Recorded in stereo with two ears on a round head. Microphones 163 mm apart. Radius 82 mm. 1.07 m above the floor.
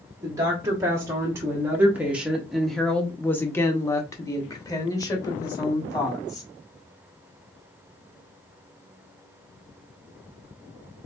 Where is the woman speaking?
20° right (ahead or behind), 1.5 m; by 6.5 s 20° left (ahead or behind), 2 m.